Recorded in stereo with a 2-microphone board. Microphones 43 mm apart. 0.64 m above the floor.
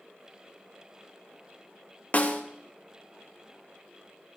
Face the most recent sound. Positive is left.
turn(degrees=40)  # may be behind; listen again after turning